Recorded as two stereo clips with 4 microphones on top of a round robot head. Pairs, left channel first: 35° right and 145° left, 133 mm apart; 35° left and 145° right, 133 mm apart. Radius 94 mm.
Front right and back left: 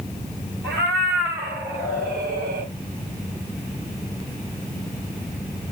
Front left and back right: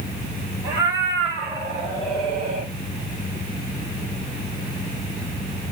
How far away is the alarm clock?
I don't hear an alarm clock.